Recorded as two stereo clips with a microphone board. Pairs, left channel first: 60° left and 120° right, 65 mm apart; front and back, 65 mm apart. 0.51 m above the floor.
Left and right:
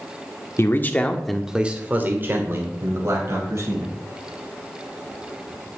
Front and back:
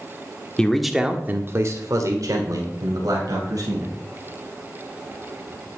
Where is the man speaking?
70° left, 1.2 m; by 3.9 s 160° right, 3.5 m.